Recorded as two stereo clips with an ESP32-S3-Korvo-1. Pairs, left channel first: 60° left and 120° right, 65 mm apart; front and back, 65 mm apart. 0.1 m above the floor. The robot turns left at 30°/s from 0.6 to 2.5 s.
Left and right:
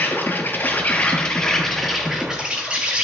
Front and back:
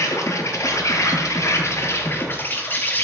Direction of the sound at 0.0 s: 10° left.